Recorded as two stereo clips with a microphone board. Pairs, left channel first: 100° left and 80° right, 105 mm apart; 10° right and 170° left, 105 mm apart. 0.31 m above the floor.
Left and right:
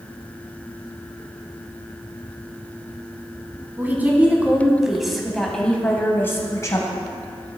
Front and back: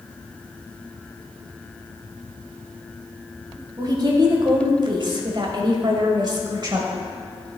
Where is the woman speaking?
145° right, 1.8 m; by 7.1 s 130° left, 1.3 m.